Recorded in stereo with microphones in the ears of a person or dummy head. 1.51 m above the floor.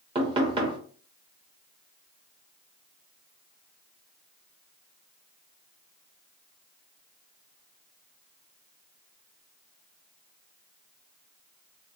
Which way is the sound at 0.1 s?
20° right (ahead or behind).